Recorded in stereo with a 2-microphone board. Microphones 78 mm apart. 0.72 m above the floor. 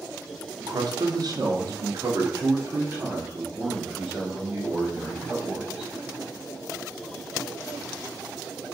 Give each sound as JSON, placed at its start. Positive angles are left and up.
{"t": 0.6, "sound": "a man speaking", "side_deg": -60, "distance_m": 1.0}